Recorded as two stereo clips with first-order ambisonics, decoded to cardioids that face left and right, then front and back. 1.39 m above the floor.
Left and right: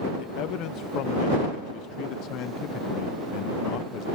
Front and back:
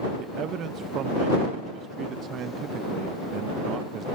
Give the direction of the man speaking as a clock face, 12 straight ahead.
8 o'clock.